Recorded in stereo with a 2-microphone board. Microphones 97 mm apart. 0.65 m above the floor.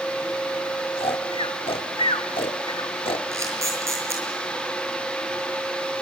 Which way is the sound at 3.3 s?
30° right (ahead or behind).